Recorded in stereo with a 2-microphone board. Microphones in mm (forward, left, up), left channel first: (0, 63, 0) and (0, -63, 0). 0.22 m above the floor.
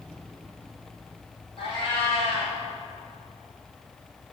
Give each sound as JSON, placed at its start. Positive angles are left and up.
{"t": 1.6, "sound": "a cat meowing", "side_deg": 45, "distance_m": 4.0}